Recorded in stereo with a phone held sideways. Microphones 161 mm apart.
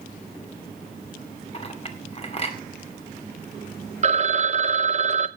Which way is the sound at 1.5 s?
40° left (ahead or behind).